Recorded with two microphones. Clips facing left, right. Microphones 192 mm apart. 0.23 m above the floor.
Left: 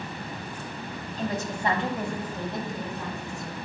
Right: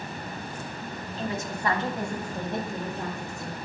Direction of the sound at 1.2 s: 45° left (ahead or behind).